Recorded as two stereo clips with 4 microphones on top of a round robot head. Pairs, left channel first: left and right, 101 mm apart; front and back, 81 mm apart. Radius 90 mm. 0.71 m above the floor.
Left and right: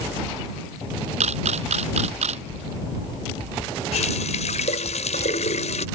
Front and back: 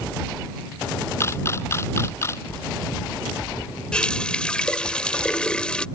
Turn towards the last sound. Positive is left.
turn(degrees=75)